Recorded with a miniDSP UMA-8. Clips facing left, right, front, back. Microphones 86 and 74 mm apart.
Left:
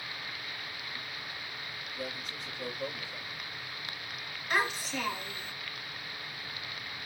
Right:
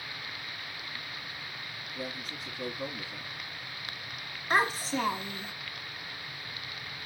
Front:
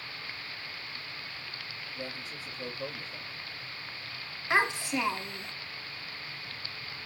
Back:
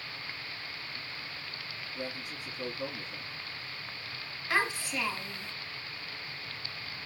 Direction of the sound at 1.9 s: 115° right.